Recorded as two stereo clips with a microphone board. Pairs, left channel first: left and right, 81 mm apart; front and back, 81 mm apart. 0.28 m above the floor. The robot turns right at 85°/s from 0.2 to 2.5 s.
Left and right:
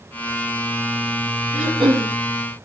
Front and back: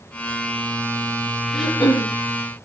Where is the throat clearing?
85° right, 8 m; by 2.1 s 35° right, 8 m.